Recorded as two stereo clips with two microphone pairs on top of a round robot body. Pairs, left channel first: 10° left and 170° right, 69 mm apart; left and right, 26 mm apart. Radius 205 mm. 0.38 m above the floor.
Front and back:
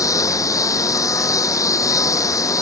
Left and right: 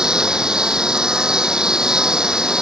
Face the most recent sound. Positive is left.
turn(degrees=-25)